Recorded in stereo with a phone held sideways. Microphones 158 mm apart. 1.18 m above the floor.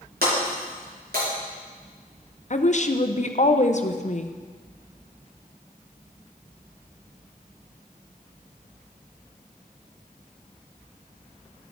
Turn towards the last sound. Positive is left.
turn(degrees=50)  # may be behind; listen again after turning